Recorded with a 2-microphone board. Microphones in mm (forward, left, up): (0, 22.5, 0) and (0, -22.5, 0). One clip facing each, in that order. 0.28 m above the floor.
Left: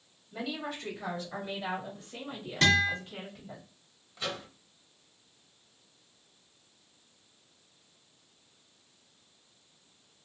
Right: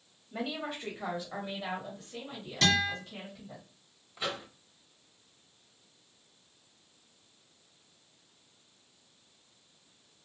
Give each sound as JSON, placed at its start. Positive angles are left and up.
{"t": 0.3, "sound": "a woman speaking", "side_deg": -30, "distance_m": 1.3}
{"t": 2.6, "sound": "a guitar", "side_deg": 35, "distance_m": 2.0}
{"t": 4.2, "sound": "a microwave", "side_deg": -15, "distance_m": 0.7}